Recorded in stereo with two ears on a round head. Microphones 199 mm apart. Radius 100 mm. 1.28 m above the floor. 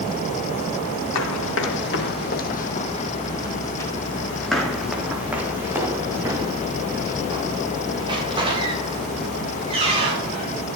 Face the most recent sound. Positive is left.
turn(degrees=-30)  # may be behind; listen again after turning